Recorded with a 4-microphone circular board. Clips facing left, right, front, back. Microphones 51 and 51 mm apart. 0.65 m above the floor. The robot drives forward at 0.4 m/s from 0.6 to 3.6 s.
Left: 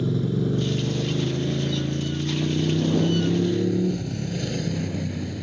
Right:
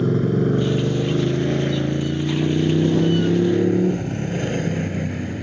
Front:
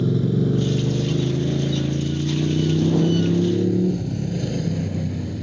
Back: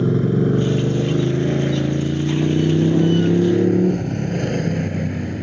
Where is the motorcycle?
135° right; by 5.4 s 145° right.